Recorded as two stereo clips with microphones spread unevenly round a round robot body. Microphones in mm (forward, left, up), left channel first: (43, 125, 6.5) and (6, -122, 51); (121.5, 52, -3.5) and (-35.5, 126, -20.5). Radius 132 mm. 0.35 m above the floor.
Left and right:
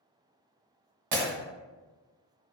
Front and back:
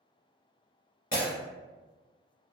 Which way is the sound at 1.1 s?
85° right.